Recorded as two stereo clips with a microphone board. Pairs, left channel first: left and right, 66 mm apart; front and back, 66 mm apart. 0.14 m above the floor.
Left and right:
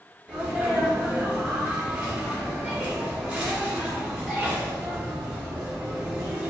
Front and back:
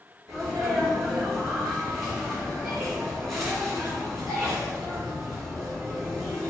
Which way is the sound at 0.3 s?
85° right.